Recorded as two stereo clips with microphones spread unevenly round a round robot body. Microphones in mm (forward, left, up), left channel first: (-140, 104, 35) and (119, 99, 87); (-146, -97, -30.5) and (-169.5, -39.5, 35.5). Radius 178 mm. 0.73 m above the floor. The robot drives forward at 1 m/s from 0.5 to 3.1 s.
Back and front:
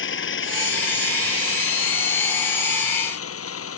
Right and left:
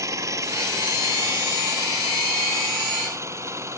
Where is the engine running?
135° left; by 3.8 s 145° left.